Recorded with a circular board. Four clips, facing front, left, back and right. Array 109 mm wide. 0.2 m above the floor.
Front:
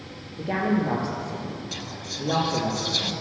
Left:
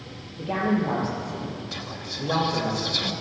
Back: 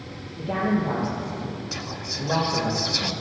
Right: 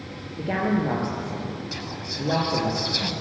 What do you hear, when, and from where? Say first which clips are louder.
0.4 s a woman speaking: even, even; 60° right, 4.5 m
1.7 s whispering: right 2 dB, back 2 dB; 155° right, 1.1 m